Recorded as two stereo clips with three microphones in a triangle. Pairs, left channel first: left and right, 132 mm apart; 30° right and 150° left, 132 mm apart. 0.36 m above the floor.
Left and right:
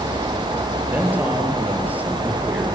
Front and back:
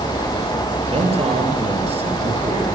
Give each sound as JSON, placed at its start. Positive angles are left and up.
{"t": 0.9, "sound": "a man speaking", "azimuth_deg": -170, "distance_m": 8.0}